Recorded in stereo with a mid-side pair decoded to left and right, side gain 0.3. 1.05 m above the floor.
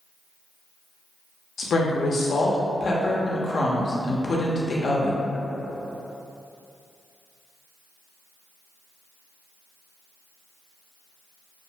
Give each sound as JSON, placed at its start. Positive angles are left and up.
{"t": 1.6, "sound": "a woman speaking", "azimuth_deg": 60, "distance_m": 0.6}